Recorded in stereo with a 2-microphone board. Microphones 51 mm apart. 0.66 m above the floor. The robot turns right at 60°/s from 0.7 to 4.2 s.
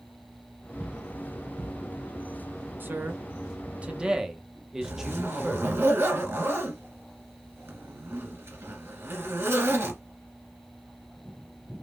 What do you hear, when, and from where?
2.8 s a man speaking: 100° right, 0.6 m; by 5.7 s 20° right, 0.6 m
4.8 s a zipper: 60° right (ahead or behind), 1.9 m